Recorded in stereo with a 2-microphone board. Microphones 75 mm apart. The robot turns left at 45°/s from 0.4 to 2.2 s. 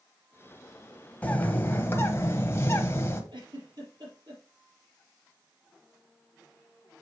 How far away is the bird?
About 1.1 m.